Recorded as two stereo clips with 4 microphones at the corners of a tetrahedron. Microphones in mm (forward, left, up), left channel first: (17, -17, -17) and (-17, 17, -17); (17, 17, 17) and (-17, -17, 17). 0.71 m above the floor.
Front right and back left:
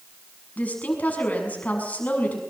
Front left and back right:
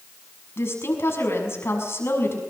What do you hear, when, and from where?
0.6 s a woman speaking: 15° left, 6.5 m